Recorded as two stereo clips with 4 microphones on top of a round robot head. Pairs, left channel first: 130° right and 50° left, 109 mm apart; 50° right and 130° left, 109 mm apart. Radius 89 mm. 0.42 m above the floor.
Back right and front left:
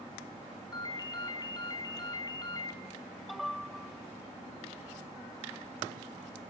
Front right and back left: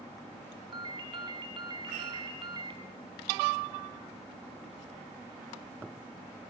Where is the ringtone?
175° left, 3.5 m.